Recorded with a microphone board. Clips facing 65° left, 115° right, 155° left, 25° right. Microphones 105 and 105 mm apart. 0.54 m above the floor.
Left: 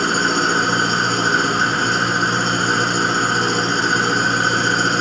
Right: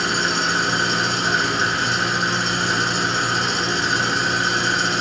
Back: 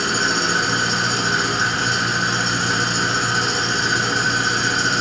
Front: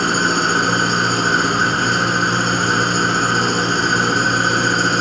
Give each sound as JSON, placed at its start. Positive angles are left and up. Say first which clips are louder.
{"t": 0.0, "sound": "an engine running", "louder": "left 4 dB, front 4 dB", "azimuth_deg": 20, "distance_m": 1.5}